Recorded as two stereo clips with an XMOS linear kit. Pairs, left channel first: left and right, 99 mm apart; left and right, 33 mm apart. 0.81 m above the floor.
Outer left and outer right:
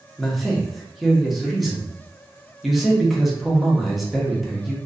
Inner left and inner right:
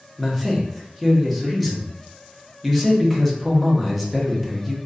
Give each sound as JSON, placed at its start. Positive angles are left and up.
{"t": 0.2, "sound": "a man speaking", "side_deg": 0, "distance_m": 0.7}